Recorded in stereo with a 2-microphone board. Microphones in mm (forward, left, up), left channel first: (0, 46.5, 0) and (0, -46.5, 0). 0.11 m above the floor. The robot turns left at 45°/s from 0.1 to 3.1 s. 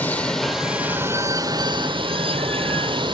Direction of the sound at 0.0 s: 20° left.